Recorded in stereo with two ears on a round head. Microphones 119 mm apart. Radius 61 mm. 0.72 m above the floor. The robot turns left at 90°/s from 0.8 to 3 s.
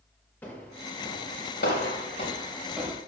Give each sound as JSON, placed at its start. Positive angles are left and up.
{"t": 0.4, "sound": "footsteps", "side_deg": 15, "distance_m": 5.0}